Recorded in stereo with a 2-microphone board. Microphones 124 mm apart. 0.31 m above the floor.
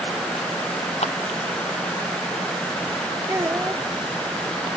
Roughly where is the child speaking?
Right.